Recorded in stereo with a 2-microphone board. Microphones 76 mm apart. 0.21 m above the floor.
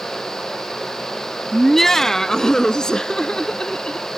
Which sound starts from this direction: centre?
Laughter, at 1.5 s.